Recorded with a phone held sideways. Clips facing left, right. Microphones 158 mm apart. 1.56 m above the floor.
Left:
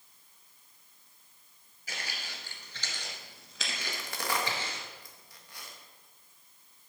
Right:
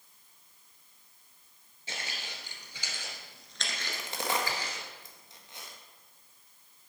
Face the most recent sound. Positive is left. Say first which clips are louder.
# right 2 dB
turn(degrees=-20)  # may be behind; listen again after turning